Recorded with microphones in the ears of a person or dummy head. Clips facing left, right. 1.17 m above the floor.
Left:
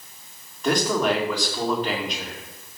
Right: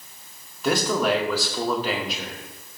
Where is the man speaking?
Centre (ahead or behind), 2 m.